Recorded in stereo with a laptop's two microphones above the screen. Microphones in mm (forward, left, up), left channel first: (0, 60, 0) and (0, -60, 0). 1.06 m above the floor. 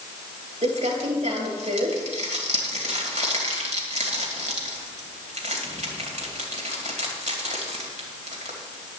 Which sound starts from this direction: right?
Crumpling, at 0.6 s.